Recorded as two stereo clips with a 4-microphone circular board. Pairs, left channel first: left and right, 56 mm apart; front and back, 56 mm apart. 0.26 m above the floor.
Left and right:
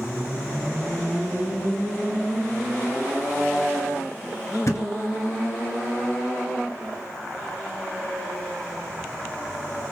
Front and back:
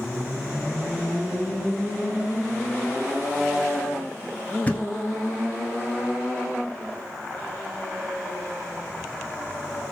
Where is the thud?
65° left, 0.8 m.